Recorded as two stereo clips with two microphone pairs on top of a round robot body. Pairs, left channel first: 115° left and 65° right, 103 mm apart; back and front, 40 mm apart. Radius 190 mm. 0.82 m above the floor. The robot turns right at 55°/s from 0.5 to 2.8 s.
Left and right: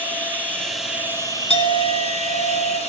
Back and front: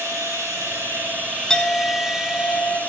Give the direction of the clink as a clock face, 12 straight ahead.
9 o'clock.